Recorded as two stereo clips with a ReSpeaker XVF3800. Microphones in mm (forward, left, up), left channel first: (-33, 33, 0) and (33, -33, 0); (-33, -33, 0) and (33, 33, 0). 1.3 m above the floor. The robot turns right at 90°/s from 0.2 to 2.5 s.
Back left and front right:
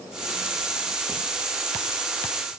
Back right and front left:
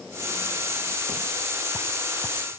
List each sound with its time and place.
Only background noise.